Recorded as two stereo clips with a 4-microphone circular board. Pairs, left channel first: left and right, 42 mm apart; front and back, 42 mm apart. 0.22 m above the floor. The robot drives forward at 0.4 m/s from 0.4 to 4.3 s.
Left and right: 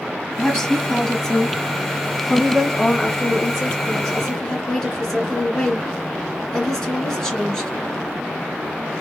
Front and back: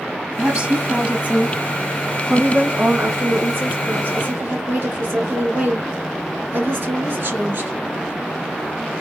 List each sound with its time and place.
0.4 s a woman speaking: 150° left, 1.0 m; by 7.7 s 175° left, 2 m